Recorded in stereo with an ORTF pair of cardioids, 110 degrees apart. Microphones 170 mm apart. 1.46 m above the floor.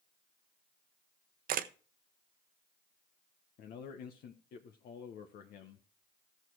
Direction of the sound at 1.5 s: 60° right.